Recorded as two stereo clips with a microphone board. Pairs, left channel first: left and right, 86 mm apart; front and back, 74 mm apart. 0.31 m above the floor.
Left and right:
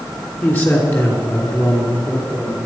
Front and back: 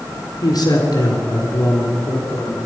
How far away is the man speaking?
About 4 m.